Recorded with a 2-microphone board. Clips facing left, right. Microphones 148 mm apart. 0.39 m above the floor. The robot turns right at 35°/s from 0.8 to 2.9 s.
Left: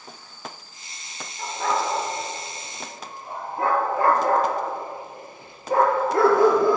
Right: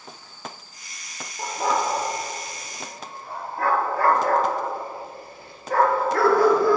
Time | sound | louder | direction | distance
1.4 | a dog barking | right 1 dB | 35° right (ahead or behind) | 2.0 m